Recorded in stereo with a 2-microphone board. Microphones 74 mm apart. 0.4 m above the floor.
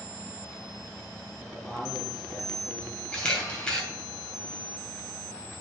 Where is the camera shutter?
15° left (ahead or behind), 2.5 m.